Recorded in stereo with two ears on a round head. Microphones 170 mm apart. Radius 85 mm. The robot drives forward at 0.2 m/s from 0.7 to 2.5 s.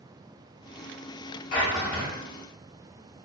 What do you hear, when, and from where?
1.5 s a drawer: 75° left (ahead or behind), 1.1 m; by 2.1 s 70° left (ahead or behind), 1.1 m